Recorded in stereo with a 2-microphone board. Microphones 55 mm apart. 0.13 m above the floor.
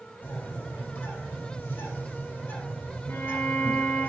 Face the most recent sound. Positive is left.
turn(degrees=60)  # may be behind; listen again after turning